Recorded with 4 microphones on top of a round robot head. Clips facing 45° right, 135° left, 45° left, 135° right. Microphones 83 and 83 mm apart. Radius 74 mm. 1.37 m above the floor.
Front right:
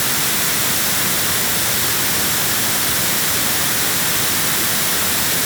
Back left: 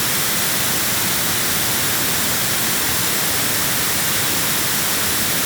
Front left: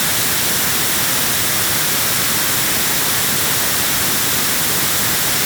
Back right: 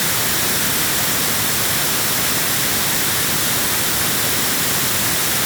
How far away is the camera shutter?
I don't hear a camera shutter.